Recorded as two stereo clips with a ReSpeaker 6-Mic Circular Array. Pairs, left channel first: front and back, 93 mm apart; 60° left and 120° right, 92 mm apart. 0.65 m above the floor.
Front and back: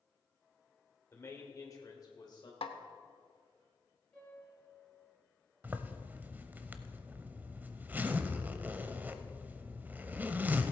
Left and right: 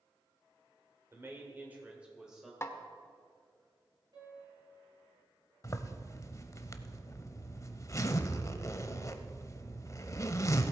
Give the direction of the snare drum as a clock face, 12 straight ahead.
12 o'clock.